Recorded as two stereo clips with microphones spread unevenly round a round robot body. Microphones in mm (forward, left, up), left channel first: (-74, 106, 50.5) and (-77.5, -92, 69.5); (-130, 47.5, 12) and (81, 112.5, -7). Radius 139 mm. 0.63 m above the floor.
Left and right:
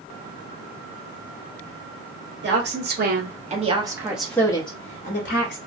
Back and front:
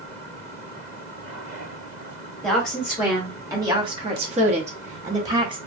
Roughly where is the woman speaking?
Right.